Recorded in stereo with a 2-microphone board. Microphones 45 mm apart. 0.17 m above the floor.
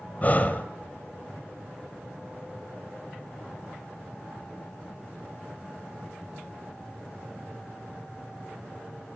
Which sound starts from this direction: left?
Breathing, at 0.2 s.